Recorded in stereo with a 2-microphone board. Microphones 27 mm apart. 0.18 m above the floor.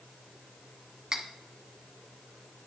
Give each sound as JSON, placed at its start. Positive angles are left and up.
{"t": 1.1, "sound": "cutlery clinking", "side_deg": -25, "distance_m": 0.8}